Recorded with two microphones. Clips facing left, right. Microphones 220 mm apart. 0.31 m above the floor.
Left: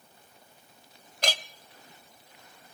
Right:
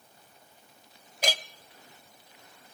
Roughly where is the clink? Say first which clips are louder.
Right 1 dB; centre.